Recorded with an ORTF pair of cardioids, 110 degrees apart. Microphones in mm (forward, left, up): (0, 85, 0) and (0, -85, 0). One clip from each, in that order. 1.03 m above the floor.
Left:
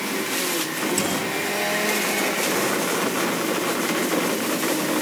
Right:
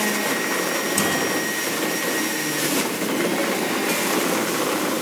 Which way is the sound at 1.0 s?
10° right.